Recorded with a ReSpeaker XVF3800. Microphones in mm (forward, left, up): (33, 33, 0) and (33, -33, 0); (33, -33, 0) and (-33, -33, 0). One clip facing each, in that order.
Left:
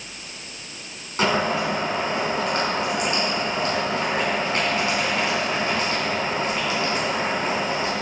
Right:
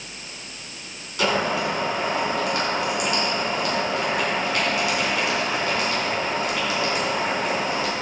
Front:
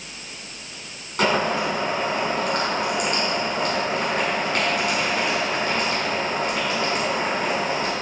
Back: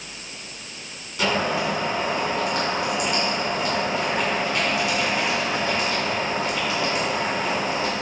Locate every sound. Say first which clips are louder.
1.2 s boiling: left 1 dB, front 2 dB; 40° left, 4 m